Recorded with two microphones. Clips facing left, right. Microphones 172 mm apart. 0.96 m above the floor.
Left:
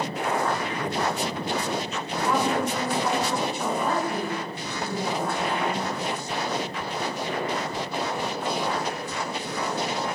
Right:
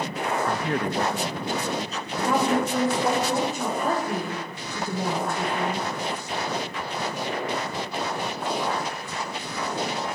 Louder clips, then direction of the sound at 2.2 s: Right 2 dB; 45° right (ahead or behind).